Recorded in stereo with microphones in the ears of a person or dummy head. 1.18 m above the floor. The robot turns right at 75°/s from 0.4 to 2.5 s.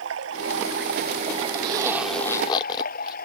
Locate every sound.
0.0 s running water: 105° right; by 3.3 s 55° left
1.6 s a zipper: 35° right; by 3.2 s 30° left